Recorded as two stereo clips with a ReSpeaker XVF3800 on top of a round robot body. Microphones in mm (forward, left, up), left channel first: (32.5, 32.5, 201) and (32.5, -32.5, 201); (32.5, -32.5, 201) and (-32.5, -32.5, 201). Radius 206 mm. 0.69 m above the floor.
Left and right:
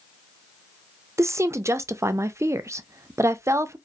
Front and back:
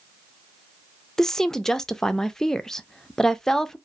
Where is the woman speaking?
80° right, 0.5 m.